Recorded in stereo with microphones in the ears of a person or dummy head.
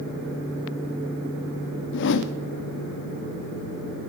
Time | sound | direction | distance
1.9 | a whoosh | 60° left (ahead or behind) | 0.6 m